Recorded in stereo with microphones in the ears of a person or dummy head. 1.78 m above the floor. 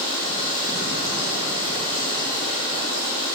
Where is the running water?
30° right (ahead or behind), 7 m.